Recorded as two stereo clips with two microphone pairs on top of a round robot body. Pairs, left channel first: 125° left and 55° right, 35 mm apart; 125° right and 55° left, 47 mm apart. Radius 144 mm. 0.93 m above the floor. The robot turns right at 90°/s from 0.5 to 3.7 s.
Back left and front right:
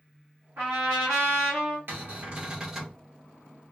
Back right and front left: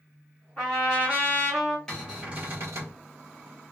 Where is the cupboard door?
45° right, 1.3 m; by 3.0 s 50° left, 1.3 m.